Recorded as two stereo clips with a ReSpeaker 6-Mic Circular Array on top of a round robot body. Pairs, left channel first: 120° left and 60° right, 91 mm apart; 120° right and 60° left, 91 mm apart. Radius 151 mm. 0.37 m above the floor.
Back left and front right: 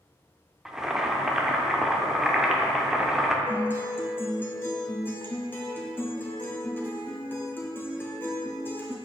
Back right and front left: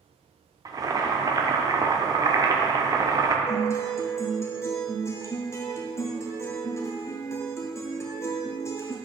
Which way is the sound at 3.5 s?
175° right.